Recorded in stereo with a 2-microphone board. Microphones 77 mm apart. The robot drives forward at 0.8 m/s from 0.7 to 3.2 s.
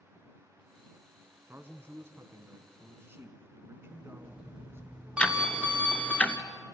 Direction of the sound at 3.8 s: 10° right (ahead or behind).